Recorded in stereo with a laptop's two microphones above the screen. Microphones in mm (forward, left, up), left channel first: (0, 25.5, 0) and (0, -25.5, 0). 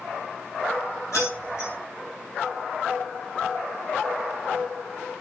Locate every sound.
1.1 s keys jangling: 65° left (ahead or behind), 4 m